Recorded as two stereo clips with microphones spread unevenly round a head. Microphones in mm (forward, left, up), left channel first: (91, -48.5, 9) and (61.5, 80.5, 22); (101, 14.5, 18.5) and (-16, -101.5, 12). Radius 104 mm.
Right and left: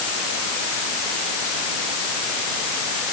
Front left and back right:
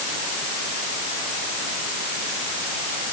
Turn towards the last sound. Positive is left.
No sound to turn to.